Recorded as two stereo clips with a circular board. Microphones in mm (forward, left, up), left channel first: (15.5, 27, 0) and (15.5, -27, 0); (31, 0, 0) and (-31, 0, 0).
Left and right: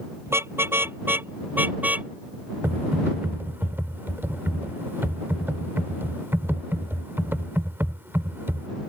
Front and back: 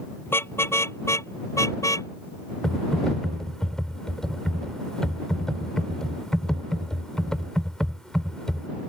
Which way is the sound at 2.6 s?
75° right.